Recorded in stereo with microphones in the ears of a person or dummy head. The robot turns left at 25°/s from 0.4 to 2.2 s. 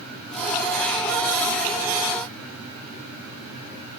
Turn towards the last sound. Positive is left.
No sound to turn to.